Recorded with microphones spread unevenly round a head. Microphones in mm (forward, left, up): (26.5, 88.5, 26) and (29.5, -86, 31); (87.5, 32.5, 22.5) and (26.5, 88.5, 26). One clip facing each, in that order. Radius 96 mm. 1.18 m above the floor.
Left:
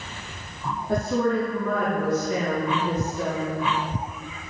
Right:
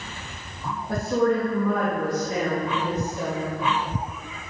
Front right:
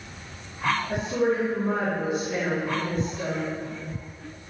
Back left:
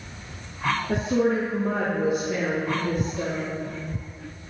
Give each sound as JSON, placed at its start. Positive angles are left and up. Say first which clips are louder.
{"t": 0.9, "sound": "a woman speaking", "louder": "right 1 dB, back left 4 dB", "azimuth_deg": 180, "distance_m": 2.5}